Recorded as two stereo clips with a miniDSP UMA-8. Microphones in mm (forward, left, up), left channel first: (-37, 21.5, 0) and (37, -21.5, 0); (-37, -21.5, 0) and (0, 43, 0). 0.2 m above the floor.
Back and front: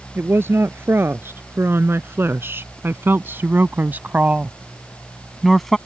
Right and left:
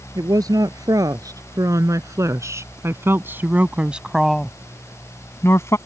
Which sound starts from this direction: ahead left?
A woman speaking, at 0.1 s.